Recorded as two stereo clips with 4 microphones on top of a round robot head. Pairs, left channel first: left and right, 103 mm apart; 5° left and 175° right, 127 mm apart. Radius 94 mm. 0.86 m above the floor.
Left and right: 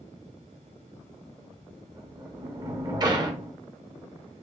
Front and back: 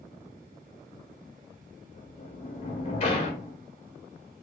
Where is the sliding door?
40° right, 1.3 m.